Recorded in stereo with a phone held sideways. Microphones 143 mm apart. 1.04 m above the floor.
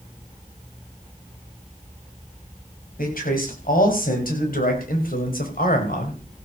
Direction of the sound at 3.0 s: 80° left.